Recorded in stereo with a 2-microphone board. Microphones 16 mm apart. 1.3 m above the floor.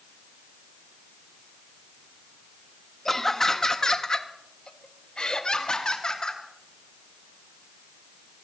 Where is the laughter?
25° left (ahead or behind), 1.6 m; by 6.4 s 70° left (ahead or behind), 2.5 m.